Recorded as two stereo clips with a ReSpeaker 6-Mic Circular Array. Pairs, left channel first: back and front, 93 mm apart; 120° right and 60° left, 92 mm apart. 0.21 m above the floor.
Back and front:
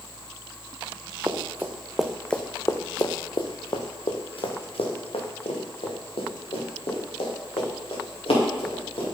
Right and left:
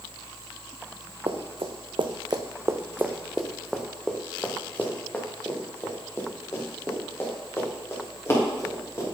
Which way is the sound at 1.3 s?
60° left.